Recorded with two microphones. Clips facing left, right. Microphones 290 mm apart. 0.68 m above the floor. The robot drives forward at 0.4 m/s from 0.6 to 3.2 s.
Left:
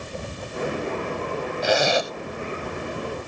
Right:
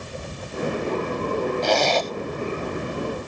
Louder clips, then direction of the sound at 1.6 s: Even; 10° left (ahead or behind).